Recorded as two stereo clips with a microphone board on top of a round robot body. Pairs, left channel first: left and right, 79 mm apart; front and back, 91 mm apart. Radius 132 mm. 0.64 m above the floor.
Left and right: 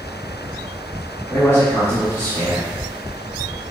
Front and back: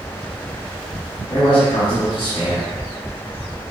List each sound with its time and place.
1.3 s a man speaking: 40° left, 1.6 m